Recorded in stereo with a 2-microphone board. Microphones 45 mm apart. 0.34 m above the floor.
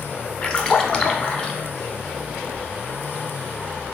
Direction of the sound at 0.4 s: 20° left (ahead or behind).